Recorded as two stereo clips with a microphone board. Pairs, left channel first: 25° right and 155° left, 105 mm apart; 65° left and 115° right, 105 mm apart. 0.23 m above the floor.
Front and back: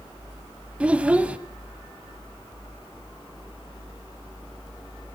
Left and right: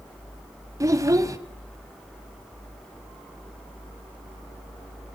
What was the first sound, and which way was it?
A child speaking, 135° right.